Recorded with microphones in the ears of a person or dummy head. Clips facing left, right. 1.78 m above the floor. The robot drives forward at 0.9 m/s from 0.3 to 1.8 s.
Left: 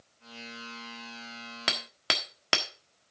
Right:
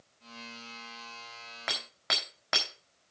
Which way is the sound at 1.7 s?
35° left (ahead or behind).